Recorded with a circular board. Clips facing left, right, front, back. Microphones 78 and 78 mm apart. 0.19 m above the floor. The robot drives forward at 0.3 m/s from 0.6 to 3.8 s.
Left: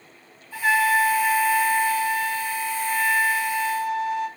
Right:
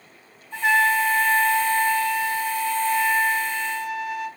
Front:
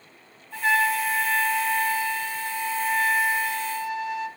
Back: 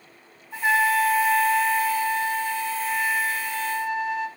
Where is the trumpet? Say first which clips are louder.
Even, back 2 dB; 140° right, 1.7 m; by 4.3 s 165° right, 2 m.